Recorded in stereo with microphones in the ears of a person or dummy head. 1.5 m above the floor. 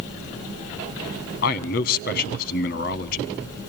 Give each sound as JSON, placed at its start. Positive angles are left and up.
{"t": 1.4, "sound": "a man speaking", "side_deg": 50, "distance_m": 1.6}